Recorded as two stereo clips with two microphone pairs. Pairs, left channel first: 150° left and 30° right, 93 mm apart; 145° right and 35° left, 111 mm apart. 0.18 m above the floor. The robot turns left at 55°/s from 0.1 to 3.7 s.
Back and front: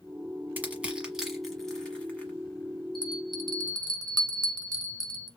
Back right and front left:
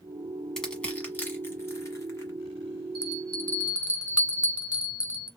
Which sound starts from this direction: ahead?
A bell, at 3.0 s.